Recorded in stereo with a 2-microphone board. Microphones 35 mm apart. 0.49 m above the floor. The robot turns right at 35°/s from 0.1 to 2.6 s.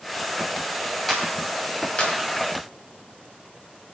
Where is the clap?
5° left (ahead or behind), 2.5 m; by 2.1 s 40° left (ahead or behind), 2.5 m.